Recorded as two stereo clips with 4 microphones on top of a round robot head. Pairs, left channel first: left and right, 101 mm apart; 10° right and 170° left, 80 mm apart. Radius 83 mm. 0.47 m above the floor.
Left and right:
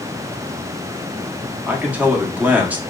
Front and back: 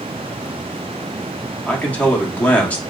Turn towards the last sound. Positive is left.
turn(degrees=-45)